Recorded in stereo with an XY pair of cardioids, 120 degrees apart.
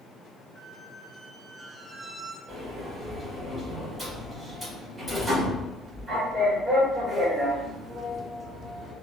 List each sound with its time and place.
0.6 s a squeak: 15° right, 2.0 m
2.5 s a sliding door: 10° right, 2.0 m